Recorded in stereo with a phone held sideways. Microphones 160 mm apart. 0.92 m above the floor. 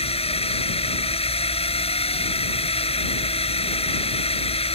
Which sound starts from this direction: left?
A drone, at 0.0 s.